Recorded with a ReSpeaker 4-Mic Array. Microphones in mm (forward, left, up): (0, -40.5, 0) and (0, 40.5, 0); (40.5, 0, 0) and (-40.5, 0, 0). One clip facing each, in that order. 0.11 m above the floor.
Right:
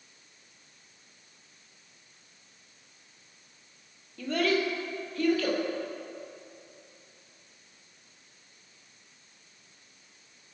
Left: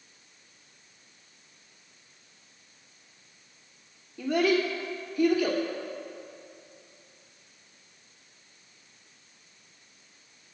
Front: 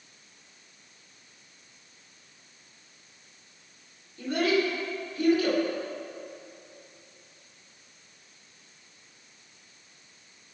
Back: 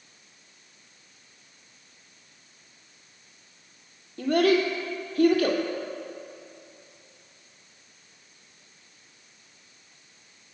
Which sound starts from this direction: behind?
A child speaking, at 4.2 s.